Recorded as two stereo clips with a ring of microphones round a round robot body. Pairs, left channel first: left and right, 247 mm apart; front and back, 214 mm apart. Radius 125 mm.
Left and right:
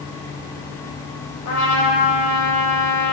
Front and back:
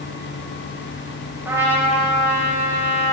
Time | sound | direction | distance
1.4 | a trumpet | 100° left | 3 m